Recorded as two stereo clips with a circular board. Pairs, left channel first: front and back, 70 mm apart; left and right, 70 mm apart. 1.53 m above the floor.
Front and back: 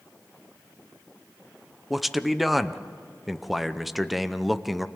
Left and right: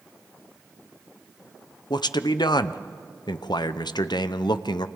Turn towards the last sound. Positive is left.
turn(degrees=90)